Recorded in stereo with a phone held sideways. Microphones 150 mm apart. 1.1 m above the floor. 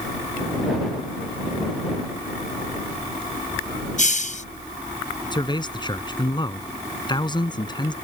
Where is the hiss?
50° left (ahead or behind).